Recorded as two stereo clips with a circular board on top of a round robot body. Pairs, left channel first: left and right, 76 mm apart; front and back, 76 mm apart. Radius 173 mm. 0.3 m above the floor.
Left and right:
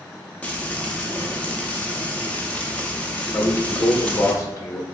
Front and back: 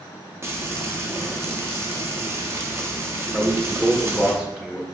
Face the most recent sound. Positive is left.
turn(degrees=105)